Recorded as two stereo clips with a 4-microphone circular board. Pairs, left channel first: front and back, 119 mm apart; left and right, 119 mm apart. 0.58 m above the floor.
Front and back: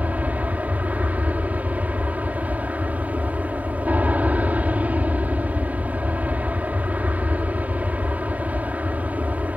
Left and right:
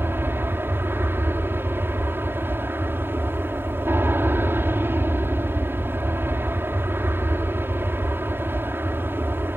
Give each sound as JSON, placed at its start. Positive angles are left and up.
{"t": 0.0, "sound": "an aircraft", "azimuth_deg": -125}